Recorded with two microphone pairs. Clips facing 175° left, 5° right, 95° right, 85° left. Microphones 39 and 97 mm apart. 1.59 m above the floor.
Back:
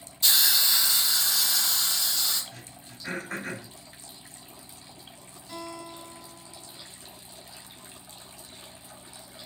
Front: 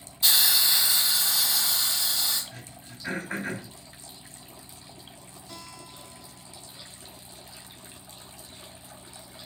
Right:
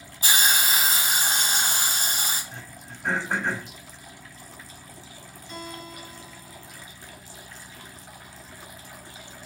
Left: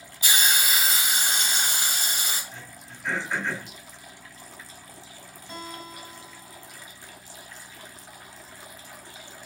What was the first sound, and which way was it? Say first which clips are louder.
A hiss: front 1 dB, right 2 dB; 85° right.